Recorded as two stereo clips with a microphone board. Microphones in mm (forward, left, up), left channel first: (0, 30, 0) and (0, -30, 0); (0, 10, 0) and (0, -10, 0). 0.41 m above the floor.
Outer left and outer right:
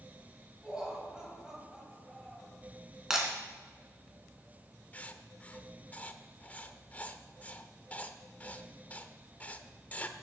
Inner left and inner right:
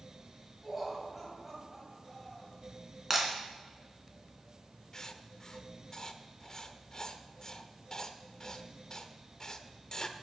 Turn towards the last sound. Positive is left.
turn(degrees=30)  # may be behind; listen again after turning